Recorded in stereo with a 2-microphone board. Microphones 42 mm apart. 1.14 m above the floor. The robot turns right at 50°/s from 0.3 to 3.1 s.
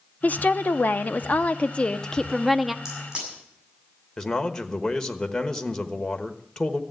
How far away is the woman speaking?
About 0.6 m.